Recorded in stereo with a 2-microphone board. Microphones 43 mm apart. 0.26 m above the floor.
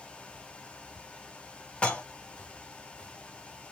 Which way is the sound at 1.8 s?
25° left (ahead or behind).